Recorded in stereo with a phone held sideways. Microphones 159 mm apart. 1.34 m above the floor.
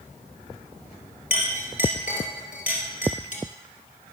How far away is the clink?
About 2.5 m.